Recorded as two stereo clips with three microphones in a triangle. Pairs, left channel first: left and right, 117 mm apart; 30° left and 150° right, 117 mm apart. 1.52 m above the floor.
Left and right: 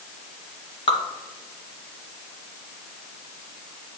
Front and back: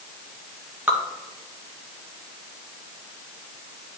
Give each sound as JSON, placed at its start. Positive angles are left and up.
{"t": 0.9, "sound": "dripping", "azimuth_deg": 135, "distance_m": 1.2}